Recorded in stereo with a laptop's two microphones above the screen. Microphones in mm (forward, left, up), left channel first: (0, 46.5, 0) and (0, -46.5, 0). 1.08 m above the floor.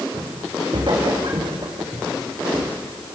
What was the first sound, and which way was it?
Footsteps, 65° right (ahead or behind).